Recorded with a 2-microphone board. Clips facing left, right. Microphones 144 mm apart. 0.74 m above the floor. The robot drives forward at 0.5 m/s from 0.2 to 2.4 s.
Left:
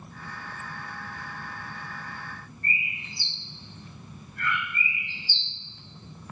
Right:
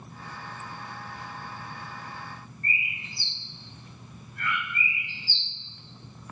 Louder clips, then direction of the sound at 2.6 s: Left 1 dB; centre (ahead or behind).